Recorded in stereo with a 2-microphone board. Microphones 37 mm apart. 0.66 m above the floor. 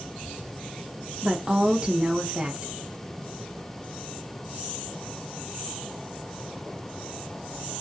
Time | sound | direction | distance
1.2 | a woman speaking | 25° right (ahead or behind) | 0.5 m